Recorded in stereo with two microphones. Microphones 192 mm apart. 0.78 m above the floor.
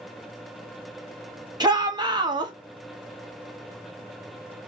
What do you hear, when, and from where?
1.6 s a shout: 20° right (ahead or behind), 1.1 m